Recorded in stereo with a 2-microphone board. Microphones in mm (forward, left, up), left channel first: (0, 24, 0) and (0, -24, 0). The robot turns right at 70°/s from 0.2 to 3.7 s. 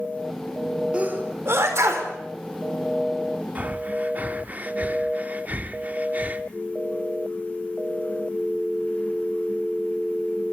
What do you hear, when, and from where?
0.9 s a sneeze: 25° right (ahead or behind), 4.5 m; by 2.1 s 75° right (ahead or behind), 4.5 m
3.5 s breathing: 35° right (ahead or behind), 1.0 m